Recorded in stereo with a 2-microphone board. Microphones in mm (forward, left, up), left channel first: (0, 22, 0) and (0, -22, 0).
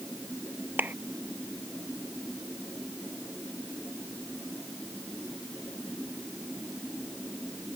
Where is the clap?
45° right (ahead or behind).